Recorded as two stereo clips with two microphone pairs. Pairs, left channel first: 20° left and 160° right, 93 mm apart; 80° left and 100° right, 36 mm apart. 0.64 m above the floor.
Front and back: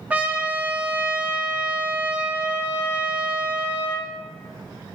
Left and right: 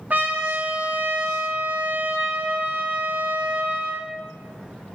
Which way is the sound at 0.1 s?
90° right.